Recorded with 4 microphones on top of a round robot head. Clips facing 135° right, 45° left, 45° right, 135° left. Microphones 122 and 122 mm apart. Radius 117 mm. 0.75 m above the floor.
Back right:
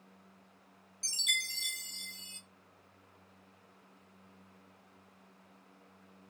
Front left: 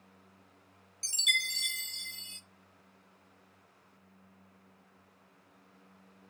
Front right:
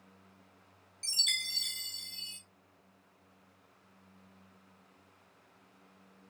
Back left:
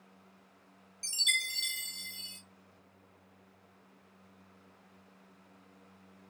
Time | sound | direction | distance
1.0 | a chime | 55° left | 2.0 m